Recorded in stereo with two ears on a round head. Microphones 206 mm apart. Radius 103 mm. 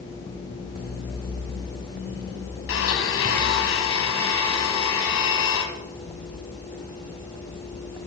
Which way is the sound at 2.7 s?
65° left (ahead or behind).